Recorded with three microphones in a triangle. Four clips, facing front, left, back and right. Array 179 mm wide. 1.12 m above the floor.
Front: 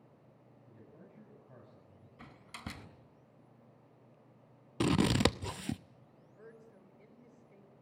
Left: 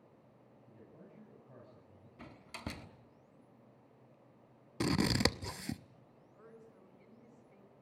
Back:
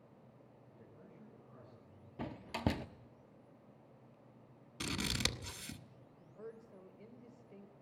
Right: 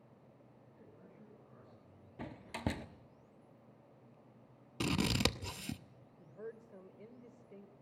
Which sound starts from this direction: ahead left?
A man speaking, at 0.7 s.